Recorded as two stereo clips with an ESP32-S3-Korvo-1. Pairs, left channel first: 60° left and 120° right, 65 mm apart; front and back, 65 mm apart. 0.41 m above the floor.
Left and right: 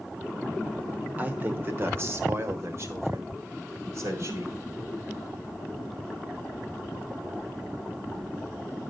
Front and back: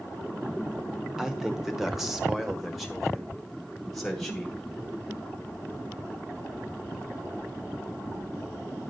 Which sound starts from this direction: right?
A man speaking, at 1.2 s.